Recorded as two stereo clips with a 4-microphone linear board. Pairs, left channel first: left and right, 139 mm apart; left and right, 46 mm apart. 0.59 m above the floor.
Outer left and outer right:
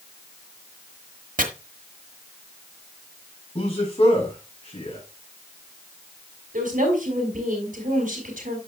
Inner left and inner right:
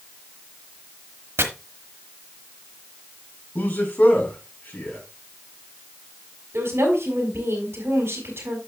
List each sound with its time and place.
1.4 s chopping: 70° right (ahead or behind), 1.3 m
3.5 s a man speaking: 45° left (ahead or behind), 6 m
6.5 s a woman speaking: 70° right (ahead or behind), 3.5 m